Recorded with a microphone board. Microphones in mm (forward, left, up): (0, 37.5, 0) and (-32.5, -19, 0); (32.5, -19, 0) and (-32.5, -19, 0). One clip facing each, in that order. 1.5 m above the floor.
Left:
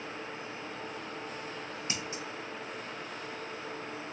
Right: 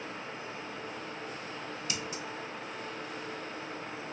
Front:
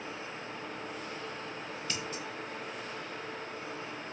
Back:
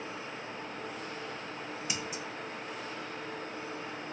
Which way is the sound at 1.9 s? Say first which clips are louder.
Left 1 dB, front 1 dB; 110° left.